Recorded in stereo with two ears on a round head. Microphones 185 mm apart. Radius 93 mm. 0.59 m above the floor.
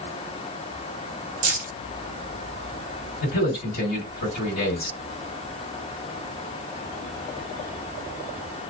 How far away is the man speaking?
About 1.9 m.